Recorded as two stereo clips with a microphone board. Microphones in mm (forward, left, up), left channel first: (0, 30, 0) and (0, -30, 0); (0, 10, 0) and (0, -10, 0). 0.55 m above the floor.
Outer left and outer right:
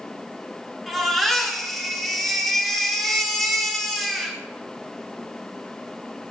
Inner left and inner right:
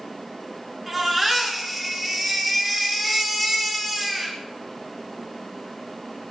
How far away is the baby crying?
About 3.5 m.